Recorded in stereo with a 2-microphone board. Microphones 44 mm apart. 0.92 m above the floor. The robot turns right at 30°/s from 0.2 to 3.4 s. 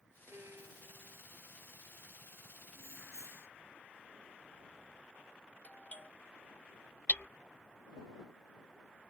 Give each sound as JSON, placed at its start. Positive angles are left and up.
{"t": 0.3, "sound": "a violin", "side_deg": -85}
{"t": 2.8, "sound": "keys jangling", "side_deg": 90}
{"t": 5.6, "sound": "a doorbell", "side_deg": 35}
{"t": 7.1, "sound": "hammering", "side_deg": 40}